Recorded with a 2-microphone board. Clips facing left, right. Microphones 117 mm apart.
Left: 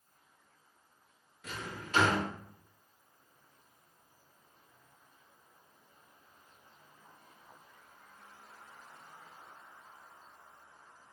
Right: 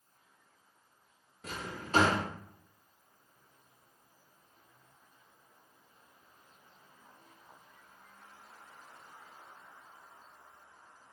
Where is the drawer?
35° right (ahead or behind), 0.6 m.